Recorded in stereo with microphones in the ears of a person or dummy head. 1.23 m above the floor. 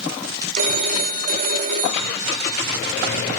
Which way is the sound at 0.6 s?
45° right (ahead or behind).